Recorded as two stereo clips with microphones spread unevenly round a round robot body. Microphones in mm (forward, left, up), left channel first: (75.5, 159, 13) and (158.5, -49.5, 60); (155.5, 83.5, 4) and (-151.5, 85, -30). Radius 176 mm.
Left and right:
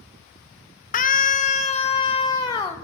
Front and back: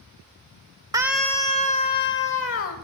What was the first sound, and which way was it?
A scream, 110° left.